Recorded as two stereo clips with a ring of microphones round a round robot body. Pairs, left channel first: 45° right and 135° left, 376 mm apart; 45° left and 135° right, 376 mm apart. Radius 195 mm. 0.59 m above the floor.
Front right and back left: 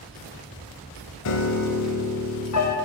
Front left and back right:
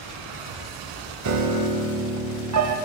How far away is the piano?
About 0.6 m.